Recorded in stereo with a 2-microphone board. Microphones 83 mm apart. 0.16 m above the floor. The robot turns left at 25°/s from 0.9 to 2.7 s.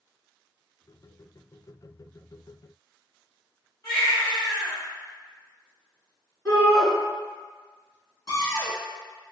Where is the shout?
40° left (ahead or behind), 1.9 m.